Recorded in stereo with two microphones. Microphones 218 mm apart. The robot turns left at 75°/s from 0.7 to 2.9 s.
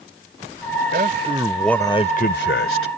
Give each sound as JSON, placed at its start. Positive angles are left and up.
{"t": 0.9, "sound": "a man speaking", "azimuth_deg": -125}